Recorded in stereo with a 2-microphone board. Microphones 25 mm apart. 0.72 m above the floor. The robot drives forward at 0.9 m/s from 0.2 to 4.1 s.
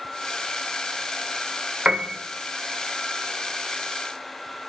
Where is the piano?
50° right (ahead or behind), 1.1 m; by 2.1 s 65° right (ahead or behind), 1.0 m.